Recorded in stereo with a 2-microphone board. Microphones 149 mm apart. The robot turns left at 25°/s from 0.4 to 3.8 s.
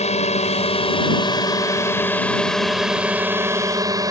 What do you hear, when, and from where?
0.0 s a drone: 60° left; by 4.1 s 25° right